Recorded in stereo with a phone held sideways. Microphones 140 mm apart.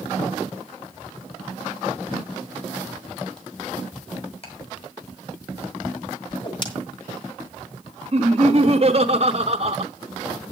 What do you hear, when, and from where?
4.4 s ticking: 45° left (ahead or behind), 4 m
6.3 s a whoosh: 35° left (ahead or behind), 1.9 m
8.1 s laughter: 45° right (ahead or behind), 0.9 m